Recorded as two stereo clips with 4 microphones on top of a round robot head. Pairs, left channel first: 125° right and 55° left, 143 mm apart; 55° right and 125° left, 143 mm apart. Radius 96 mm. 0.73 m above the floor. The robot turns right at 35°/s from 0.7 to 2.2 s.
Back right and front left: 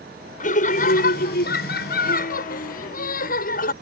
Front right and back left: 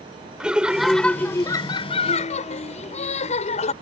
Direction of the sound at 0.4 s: 155° right.